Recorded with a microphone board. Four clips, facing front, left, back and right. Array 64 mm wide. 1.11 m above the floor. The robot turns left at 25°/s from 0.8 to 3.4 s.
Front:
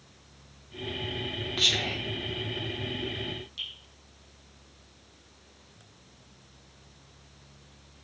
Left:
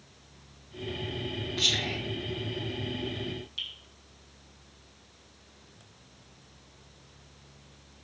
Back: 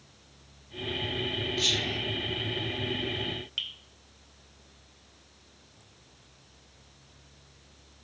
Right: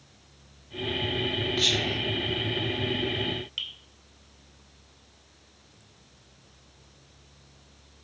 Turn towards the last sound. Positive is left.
turn(degrees=-145)